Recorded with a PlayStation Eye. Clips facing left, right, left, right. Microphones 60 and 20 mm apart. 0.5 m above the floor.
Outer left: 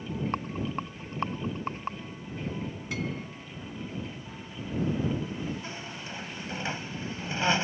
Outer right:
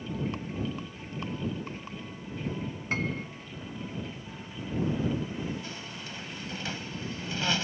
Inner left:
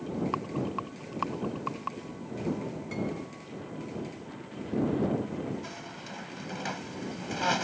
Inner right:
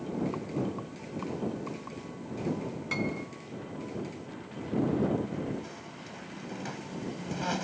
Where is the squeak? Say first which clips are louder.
Outer left 2 dB, inner left 3 dB; 30° left (ahead or behind).